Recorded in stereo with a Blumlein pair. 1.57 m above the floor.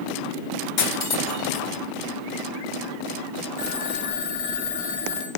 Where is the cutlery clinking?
40° left, 2 m.